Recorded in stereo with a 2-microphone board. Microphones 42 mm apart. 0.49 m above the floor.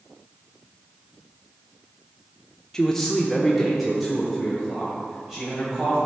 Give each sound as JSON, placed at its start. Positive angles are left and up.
{"t": 2.7, "sound": "a man speaking", "side_deg": 15, "distance_m": 0.7}